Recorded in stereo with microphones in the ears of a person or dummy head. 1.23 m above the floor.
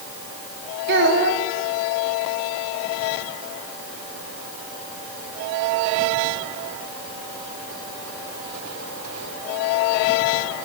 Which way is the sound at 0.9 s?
55° right (ahead or behind).